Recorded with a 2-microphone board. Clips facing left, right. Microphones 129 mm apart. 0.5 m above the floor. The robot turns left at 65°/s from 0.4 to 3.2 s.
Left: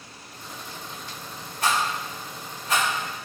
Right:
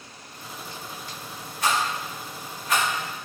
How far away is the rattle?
About 1.7 m.